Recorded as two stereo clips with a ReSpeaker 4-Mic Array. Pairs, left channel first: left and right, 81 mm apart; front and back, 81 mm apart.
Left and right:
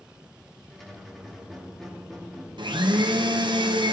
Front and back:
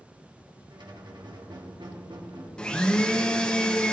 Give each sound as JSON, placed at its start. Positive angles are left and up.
{"t": 0.7, "sound": "a squeak", "azimuth_deg": 175, "distance_m": 1.5}
{"t": 2.6, "sound": "a blender", "azimuth_deg": -80, "distance_m": 0.8}